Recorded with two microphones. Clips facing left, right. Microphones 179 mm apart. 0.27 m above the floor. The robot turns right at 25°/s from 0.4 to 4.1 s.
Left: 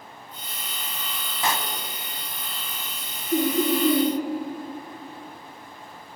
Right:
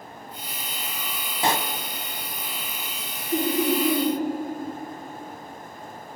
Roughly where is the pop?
Right.